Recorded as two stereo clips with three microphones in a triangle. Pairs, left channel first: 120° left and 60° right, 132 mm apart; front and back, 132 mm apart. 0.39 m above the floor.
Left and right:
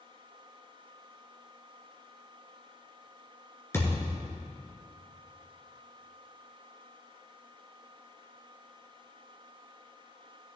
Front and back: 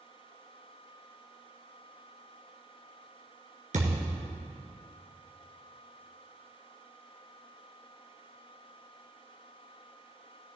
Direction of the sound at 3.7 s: 170° right.